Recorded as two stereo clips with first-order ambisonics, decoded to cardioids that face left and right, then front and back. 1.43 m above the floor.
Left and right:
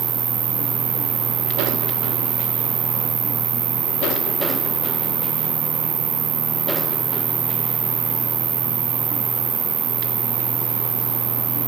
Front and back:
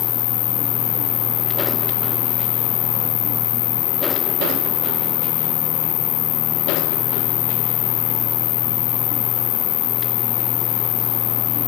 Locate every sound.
0.0 s an insect: 30° right